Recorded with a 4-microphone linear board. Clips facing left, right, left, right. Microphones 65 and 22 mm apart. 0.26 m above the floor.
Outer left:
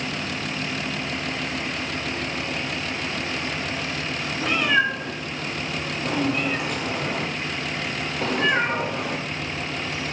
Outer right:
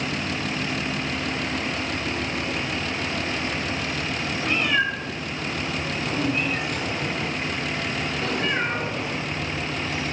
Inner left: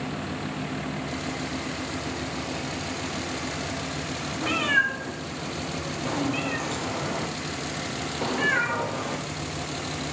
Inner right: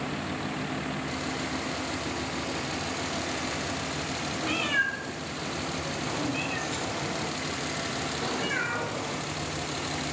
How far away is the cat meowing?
About 2.5 m.